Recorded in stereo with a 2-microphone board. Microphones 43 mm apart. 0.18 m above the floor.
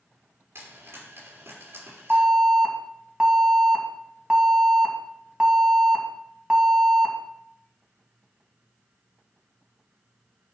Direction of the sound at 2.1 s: 20° right (ahead or behind).